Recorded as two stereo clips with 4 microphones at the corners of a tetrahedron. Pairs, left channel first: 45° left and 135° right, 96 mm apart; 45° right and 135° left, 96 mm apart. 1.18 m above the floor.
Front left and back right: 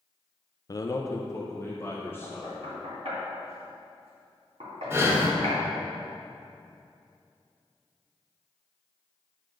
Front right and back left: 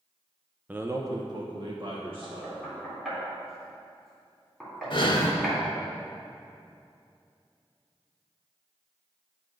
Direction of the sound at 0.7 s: 75° left.